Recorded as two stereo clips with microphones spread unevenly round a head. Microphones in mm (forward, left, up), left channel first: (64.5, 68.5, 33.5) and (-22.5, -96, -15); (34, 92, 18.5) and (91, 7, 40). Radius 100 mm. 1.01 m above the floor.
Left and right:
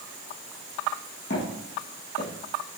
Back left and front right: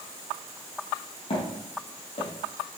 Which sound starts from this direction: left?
Footsteps, at 1.3 s.